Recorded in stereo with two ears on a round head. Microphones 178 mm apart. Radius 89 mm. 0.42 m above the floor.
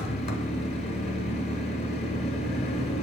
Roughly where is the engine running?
Left.